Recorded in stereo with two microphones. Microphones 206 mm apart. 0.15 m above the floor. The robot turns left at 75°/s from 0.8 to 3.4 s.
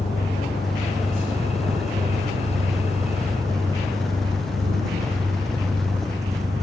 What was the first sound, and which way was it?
An engine running, 30° left.